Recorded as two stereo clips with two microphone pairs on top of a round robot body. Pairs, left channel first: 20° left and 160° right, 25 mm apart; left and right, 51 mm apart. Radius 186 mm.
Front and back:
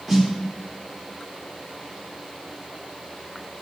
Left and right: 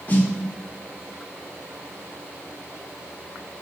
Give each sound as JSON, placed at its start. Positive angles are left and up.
{"t": 0.1, "sound": "a snare drum", "azimuth_deg": 140, "distance_m": 1.7}